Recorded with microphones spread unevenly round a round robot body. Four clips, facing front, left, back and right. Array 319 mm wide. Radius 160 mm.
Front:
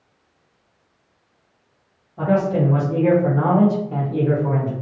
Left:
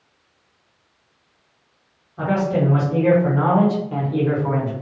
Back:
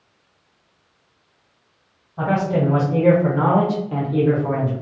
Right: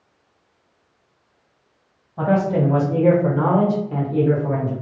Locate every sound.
2.2 s a man speaking: 100° right, 1.5 m; by 4.7 s 65° left, 1.2 m